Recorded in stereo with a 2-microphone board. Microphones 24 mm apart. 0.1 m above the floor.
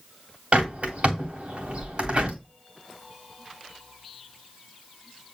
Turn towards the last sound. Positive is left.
turn(degrees=-65)  # may be behind; listen again after turning